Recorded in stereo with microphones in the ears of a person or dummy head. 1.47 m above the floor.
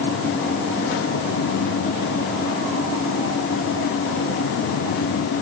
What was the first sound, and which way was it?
Only background noise.